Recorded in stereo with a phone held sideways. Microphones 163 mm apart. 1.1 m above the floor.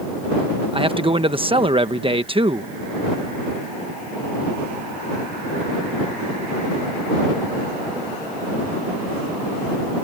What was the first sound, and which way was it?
A man speaking, 35° right (ahead or behind).